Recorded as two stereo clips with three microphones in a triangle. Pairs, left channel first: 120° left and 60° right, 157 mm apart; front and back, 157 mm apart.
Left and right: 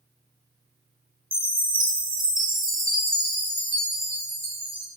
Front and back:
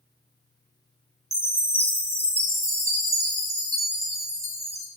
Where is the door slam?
I don't hear a door slam.